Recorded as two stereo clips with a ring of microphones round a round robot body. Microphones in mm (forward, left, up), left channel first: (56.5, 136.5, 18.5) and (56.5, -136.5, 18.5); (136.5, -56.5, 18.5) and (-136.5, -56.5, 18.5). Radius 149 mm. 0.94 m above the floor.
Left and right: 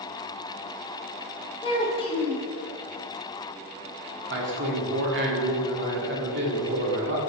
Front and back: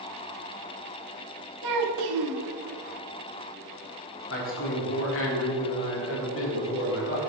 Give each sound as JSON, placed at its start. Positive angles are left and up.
{"t": 1.6, "sound": "a child speaking", "azimuth_deg": 165, "distance_m": 1.3}
{"t": 4.3, "sound": "a man speaking", "azimuth_deg": -40, "distance_m": 2.5}